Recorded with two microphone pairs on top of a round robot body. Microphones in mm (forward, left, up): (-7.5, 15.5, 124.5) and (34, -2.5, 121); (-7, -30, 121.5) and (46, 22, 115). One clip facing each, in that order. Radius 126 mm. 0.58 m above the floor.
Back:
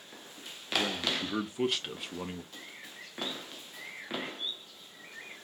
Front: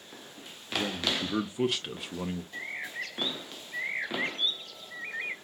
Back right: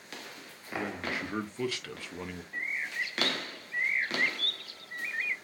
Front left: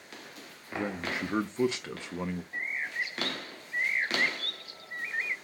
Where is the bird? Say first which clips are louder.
Front 10 dB, back right 3 dB; 15° right, 0.7 m.